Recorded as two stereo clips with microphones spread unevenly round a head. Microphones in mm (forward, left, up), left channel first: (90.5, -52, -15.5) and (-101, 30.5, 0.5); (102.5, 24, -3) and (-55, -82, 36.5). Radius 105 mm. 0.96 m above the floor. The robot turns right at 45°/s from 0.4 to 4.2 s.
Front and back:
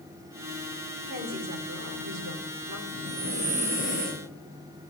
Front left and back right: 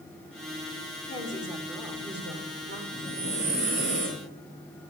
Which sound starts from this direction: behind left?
Breathing, at 2.9 s.